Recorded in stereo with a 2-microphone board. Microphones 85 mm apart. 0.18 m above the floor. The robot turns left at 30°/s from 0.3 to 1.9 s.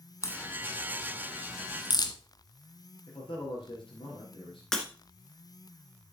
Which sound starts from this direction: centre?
Breaking glass, at 4.7 s.